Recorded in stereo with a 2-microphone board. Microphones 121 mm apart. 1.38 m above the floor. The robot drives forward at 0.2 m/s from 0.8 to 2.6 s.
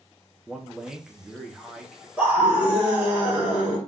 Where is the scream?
15° right (ahead or behind), 1.3 m; by 3.8 s 10° right (ahead or behind), 1.3 m.